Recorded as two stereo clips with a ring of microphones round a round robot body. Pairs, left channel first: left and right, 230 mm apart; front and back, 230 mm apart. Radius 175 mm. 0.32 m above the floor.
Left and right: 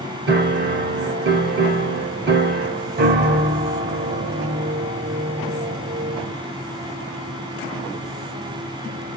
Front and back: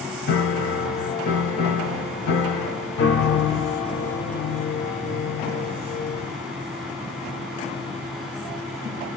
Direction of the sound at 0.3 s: 40° right.